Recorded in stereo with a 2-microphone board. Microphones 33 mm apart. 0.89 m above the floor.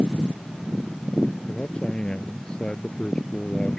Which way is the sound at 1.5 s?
25° left (ahead or behind).